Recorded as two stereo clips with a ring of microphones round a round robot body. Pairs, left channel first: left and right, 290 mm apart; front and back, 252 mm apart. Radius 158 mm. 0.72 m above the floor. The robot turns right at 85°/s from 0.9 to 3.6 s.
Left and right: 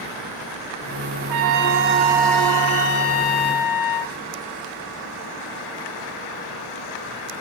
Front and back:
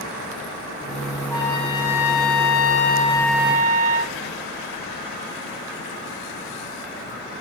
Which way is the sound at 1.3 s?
80° right.